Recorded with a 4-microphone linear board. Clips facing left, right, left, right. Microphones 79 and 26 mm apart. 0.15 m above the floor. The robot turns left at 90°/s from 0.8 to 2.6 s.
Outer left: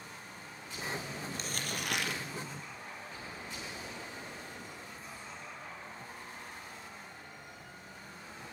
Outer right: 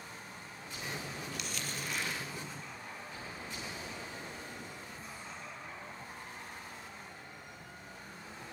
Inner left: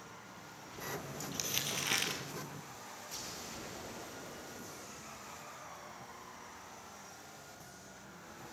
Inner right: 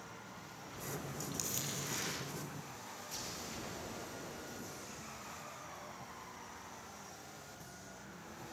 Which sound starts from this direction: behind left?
Crumpling, at 1.3 s.